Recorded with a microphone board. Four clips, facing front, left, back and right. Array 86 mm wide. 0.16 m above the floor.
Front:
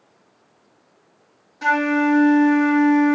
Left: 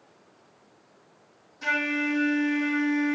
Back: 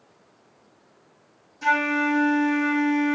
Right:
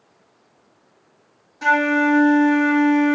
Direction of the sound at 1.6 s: 45° right.